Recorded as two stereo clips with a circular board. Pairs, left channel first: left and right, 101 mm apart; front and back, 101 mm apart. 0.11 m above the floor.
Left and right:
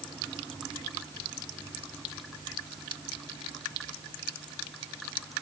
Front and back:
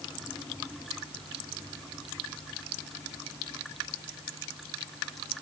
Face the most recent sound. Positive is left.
No sound to turn to.